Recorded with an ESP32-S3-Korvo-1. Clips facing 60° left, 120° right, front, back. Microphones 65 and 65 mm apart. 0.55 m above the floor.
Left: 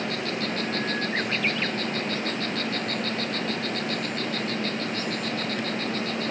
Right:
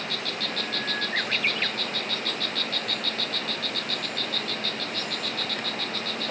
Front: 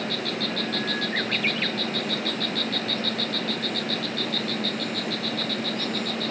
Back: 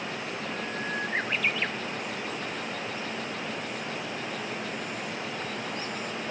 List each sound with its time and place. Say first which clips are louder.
0.0 s an insect: left 4 dB, front 5 dB; 5° left